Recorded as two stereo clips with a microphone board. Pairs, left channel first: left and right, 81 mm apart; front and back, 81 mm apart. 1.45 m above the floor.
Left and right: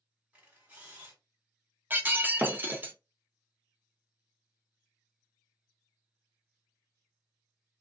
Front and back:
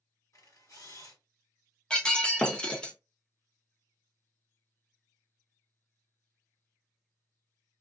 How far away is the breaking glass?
About 0.6 m.